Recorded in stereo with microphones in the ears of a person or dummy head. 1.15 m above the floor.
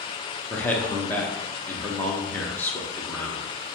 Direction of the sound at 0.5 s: 5° left (ahead or behind).